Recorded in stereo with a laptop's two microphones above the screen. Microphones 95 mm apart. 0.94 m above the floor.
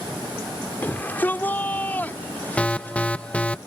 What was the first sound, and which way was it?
A shout, 20° left (ahead or behind).